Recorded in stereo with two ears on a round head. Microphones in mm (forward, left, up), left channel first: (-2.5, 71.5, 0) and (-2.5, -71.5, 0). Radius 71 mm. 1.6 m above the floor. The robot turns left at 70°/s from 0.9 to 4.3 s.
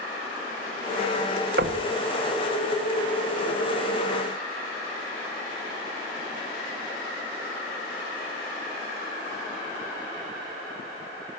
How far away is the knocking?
About 2 m.